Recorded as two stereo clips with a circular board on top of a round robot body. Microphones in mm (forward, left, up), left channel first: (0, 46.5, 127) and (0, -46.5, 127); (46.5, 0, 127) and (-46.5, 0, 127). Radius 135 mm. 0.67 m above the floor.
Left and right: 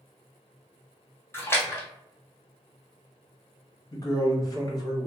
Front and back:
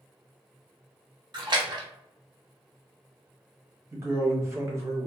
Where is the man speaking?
130° left, 1.3 m.